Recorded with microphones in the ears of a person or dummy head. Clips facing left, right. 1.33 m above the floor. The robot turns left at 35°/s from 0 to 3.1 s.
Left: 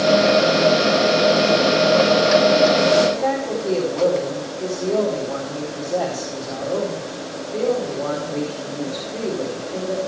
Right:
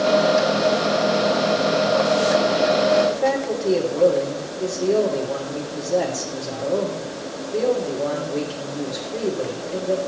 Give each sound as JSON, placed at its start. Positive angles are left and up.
{"t": 3.1, "sound": "a man speaking", "side_deg": -10, "distance_m": 3.0}